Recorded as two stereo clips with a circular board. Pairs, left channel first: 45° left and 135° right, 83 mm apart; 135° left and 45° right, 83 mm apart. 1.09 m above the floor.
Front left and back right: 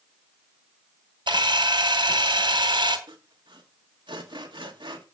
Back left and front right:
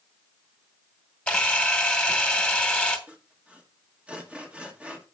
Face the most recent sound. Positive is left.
turn(degrees=-120)